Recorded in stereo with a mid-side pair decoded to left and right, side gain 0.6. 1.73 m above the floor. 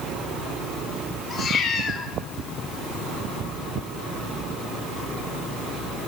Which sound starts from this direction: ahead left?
A cat meowing, at 1.3 s.